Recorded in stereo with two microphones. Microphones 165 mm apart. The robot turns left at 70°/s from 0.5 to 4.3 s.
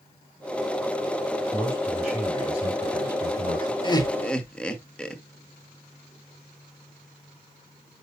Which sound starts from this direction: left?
Laughter, at 3.8 s.